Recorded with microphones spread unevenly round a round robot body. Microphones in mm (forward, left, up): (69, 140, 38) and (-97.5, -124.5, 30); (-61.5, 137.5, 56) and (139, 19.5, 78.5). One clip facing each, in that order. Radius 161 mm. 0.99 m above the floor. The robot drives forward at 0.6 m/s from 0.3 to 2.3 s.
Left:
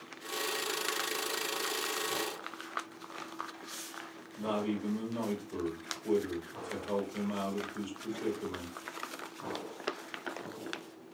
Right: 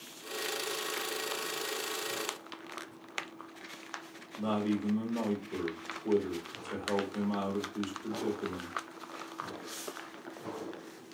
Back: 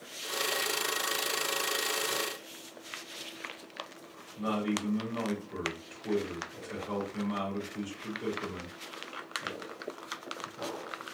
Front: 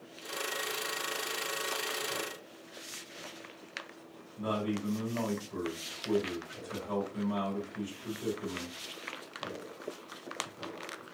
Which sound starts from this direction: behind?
A man speaking, at 4.4 s.